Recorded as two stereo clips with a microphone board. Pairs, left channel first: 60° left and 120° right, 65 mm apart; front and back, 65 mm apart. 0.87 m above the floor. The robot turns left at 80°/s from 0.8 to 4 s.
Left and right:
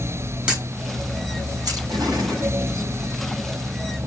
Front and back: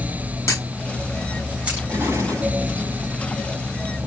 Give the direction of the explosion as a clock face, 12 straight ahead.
4 o'clock.